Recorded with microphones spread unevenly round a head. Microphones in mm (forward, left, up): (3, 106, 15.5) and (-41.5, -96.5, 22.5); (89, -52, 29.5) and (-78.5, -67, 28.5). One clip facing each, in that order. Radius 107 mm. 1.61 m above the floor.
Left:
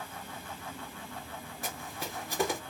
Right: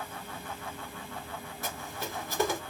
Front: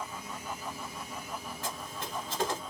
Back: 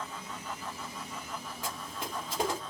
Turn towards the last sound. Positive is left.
turn(degrees=135)